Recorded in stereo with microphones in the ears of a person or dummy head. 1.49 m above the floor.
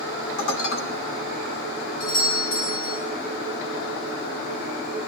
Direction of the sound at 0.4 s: 75° left (ahead or behind).